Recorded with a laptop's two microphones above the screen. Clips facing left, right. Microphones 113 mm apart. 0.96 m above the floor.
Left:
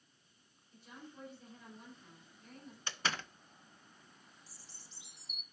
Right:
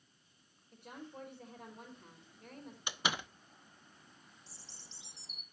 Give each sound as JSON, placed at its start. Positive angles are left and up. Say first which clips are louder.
{"t": 0.7, "sound": "a woman speaking", "louder": "right 4 dB", "side_deg": -60, "distance_m": 4.0}
{"t": 2.9, "sound": "a door slam", "louder": "right 1 dB", "side_deg": -15, "distance_m": 0.7}
{"t": 4.5, "sound": "a bird", "louder": "right 2 dB", "side_deg": -30, "distance_m": 1.4}